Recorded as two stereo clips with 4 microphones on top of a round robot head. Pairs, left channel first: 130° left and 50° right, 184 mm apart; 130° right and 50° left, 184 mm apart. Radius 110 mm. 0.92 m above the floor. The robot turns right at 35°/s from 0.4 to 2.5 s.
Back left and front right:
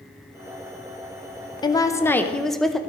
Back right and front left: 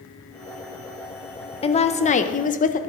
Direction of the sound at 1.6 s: 175° right.